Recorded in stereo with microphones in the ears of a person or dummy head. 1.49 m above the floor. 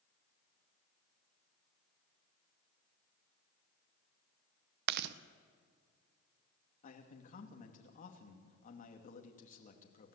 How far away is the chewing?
About 0.7 m.